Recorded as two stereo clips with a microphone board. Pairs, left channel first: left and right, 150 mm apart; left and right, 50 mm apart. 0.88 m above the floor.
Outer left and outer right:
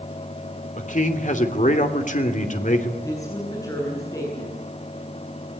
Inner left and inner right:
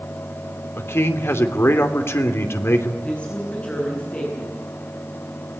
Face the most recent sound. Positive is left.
turn(degrees=20)  # may be behind; listen again after turning